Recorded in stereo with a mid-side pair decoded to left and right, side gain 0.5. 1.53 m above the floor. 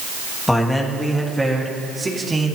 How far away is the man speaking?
About 2.5 m.